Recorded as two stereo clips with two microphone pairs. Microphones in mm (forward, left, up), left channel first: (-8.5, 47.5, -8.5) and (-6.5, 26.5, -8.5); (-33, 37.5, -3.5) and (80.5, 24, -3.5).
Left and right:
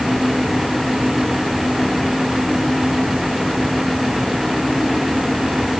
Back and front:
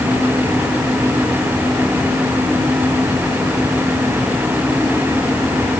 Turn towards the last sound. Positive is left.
No sound to turn to.